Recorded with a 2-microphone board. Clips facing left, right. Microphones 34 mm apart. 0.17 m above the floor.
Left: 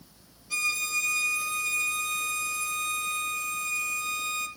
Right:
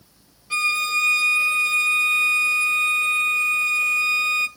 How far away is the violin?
About 0.9 m.